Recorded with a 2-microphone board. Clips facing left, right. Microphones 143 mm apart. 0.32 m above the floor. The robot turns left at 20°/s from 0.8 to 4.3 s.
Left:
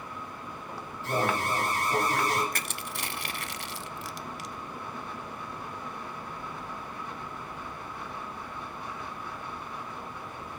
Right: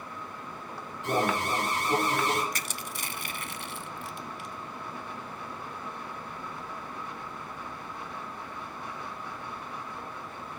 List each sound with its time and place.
1.0 s an alarm: 75° right (ahead or behind), 7.5 m
2.5 s crushing: 55° left (ahead or behind), 0.5 m; by 4.5 s 90° left, 0.5 m